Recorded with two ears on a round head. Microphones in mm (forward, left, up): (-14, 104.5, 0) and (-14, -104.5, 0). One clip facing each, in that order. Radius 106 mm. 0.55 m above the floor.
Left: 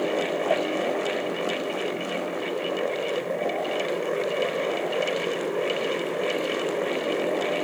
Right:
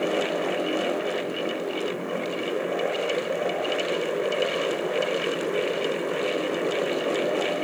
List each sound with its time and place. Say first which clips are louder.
0.5 s a cowbell: left 2 dB; 75° left (ahead or behind)